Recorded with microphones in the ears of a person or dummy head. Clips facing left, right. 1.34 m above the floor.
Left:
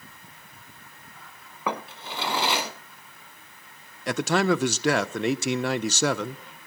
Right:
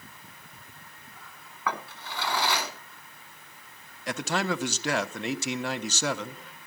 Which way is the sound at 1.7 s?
20° left (ahead or behind).